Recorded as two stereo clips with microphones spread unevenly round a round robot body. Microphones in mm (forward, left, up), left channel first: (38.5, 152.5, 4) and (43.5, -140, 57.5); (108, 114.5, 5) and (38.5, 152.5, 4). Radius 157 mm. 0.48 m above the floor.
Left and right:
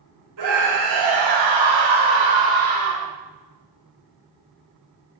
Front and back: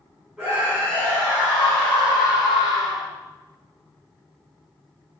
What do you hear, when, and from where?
0.4 s a scream: 120° right, 4 m; by 3.1 s 70° right, 4 m